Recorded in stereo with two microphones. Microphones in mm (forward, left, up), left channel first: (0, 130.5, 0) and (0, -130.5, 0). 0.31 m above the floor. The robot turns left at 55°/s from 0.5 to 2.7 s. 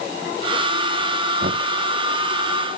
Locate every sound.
1.4 s knocking: 45° right (ahead or behind); by 1.6 s 35° right (ahead or behind)